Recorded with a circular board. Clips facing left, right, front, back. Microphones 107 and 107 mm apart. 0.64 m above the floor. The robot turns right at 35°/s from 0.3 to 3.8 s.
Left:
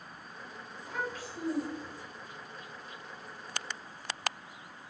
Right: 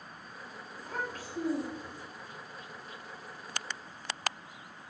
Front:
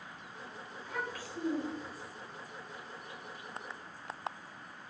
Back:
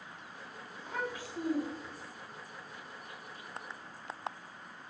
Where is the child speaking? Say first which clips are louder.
Left 1 dB, back 2 dB; 125° right, 0.7 m; by 2.0 s 80° right, 0.7 m.